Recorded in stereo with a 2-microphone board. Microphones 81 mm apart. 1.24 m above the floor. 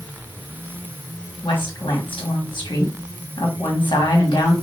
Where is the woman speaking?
80° left, 1.4 m.